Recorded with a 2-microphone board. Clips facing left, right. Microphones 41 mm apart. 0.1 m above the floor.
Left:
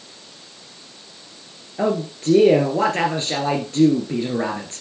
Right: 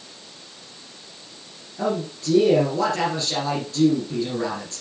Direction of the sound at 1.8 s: 40° left (ahead or behind).